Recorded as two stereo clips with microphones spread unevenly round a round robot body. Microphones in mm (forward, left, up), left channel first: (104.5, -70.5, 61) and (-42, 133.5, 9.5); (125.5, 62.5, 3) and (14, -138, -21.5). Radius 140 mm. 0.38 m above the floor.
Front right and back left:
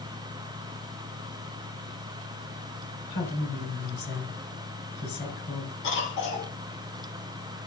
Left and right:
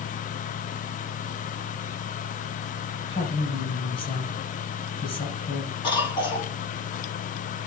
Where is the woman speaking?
5° right, 5.5 m.